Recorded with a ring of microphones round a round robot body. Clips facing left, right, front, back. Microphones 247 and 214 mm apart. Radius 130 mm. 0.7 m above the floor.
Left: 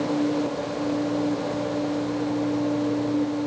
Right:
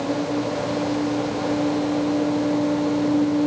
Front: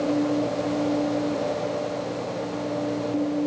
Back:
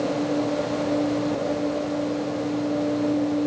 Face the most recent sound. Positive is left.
No sound to turn to.